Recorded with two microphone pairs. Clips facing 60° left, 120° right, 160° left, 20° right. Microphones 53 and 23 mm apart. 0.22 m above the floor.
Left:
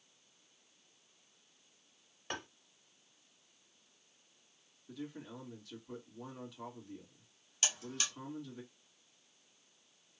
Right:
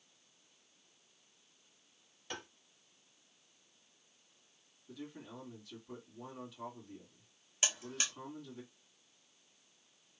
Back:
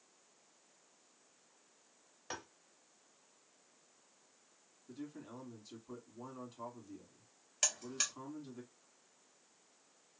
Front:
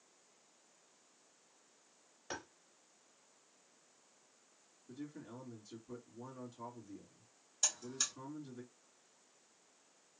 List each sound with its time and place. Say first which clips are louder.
2.3 s tapping: left 3 dB, even; 90° left, 1.0 m
4.9 s a man speaking: left 2 dB, even; 155° left, 1.9 m
7.6 s a buzzer: right 1 dB, back 1 dB; straight behind, 1.5 m